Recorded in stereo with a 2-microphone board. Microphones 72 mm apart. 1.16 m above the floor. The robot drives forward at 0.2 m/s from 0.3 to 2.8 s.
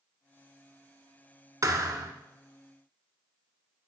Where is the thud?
55° right (ahead or behind), 1.5 m; by 2.1 s 60° right (ahead or behind), 1.5 m.